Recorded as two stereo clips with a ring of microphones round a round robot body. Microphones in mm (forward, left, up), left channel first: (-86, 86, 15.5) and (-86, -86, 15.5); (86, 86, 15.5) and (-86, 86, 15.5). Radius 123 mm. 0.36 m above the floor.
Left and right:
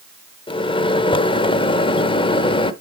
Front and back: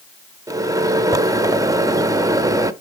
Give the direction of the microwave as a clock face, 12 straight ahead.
8 o'clock.